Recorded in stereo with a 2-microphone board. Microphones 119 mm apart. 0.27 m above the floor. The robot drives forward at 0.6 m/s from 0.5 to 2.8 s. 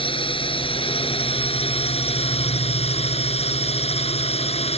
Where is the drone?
50° left (ahead or behind); by 4.8 s 60° left (ahead or behind).